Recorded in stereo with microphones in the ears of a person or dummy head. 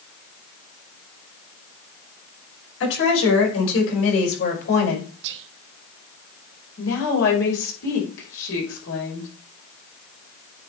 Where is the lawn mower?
I don't hear a lawn mower.